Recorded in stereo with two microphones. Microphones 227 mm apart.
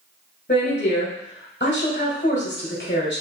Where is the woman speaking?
50° left (ahead or behind), 1.7 m.